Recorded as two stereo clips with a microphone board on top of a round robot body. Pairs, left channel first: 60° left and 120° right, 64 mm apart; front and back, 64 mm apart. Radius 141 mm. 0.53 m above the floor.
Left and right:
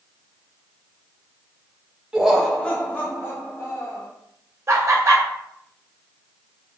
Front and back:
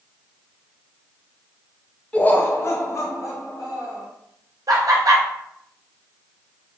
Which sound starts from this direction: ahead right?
Laughter, at 2.1 s.